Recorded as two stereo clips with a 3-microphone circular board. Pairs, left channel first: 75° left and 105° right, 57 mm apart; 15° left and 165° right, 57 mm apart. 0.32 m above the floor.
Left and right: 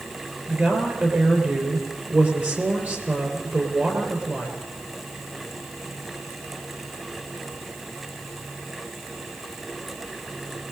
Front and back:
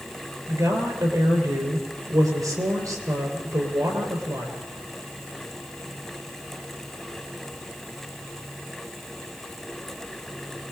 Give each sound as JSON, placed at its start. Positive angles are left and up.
{"t": 0.5, "sound": "a woman speaking", "azimuth_deg": -165, "distance_m": 5.0}